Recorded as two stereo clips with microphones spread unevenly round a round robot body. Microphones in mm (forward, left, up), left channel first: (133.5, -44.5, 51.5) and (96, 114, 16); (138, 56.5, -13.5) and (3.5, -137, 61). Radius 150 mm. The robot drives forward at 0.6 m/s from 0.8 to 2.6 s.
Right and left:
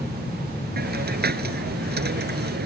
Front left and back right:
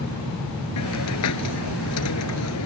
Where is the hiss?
85° left; by 2.7 s 90° left.